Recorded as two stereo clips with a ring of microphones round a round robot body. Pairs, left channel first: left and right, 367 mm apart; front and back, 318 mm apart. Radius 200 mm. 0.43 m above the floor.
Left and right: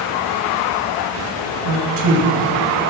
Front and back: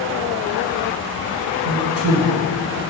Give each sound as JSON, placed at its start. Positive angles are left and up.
{"t": 1.6, "sound": "a man speaking", "azimuth_deg": -130, "distance_m": 2.5}